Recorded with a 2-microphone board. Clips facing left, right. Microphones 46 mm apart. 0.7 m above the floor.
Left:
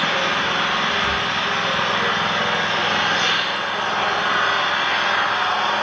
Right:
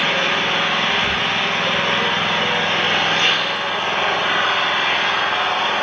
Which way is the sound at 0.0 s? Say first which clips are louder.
Right 2 dB; 50° right (ahead or behind).